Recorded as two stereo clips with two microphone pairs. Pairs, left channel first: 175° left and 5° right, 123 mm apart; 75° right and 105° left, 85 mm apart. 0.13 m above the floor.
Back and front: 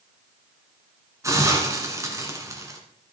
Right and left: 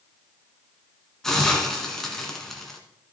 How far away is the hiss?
About 1.5 m.